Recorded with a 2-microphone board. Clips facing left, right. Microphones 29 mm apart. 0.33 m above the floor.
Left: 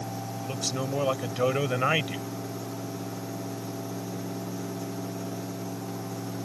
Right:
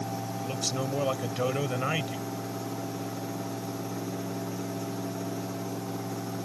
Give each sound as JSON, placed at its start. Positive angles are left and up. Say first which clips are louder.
{"t": 0.4, "sound": "a man speaking", "louder": "left 1 dB", "side_deg": 0}